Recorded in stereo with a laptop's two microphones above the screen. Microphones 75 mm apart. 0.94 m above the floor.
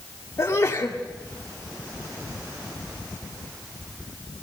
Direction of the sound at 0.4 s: 40° left (ahead or behind).